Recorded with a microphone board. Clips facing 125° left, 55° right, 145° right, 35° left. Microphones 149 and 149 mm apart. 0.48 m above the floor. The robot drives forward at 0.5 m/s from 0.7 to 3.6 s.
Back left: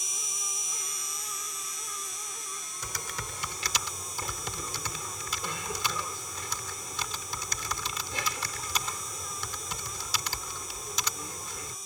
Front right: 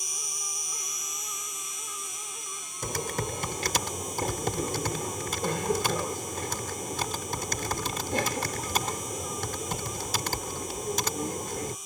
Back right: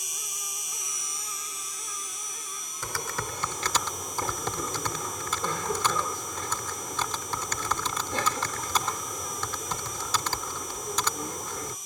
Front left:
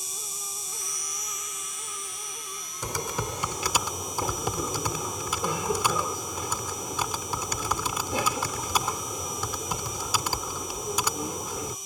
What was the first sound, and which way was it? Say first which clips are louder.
An insect: front right 1 dB, front left 2 dB; 155° left.